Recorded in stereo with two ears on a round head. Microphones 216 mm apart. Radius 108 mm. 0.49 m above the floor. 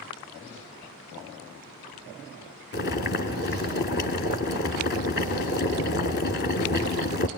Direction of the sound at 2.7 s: 45° left (ahead or behind).